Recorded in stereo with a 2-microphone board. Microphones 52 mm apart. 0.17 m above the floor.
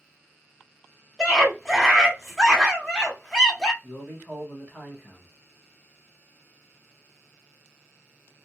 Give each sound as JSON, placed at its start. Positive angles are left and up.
{"t": 1.2, "sound": "a scream", "side_deg": 10, "distance_m": 1.2}
{"t": 3.8, "sound": "a man speaking", "side_deg": 25, "distance_m": 1.3}